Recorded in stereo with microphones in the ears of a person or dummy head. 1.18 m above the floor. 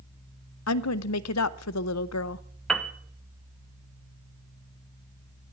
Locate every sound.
0.7 s a woman speaking: 80° left, 0.6 m
2.7 s a piano: centre (ahead or behind), 0.9 m